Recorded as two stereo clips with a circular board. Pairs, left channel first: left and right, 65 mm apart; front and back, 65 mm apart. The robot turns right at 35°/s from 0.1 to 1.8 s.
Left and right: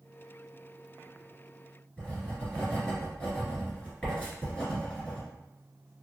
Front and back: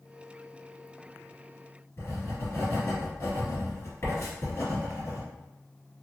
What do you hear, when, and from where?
2.0 s writing: 20° left, 1.7 m